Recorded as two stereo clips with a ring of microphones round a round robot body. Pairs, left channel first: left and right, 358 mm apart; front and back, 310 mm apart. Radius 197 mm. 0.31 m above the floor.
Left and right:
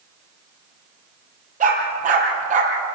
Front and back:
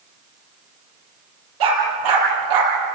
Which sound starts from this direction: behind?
A dog barking, at 1.6 s.